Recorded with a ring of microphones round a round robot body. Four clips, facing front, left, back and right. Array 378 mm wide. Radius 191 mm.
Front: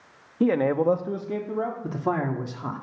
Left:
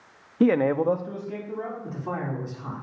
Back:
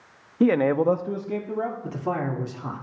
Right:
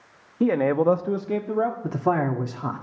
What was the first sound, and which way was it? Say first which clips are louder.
A man speaking: even, back 2 dB; 120° left.